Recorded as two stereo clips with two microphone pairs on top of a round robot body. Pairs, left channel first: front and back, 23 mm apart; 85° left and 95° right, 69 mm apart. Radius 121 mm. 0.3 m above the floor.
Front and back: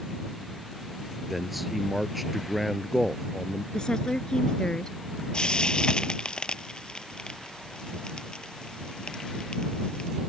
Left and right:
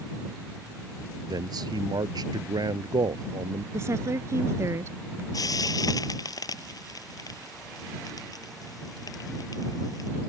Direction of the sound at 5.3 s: 55° left.